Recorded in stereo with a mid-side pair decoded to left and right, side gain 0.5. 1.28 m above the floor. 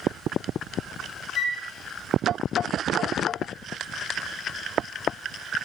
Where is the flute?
60° left, 0.5 m.